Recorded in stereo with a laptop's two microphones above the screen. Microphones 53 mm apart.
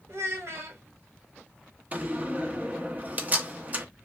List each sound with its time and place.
0.1 s a child speaking: 60° right (ahead or behind), 0.8 m
1.9 s a door slam: 35° right (ahead or behind), 0.8 m